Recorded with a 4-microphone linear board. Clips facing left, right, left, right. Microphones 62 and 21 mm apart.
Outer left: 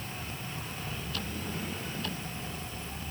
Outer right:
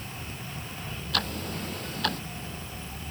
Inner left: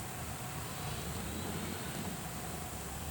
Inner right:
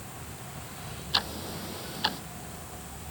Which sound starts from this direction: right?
Ticking, at 1.1 s.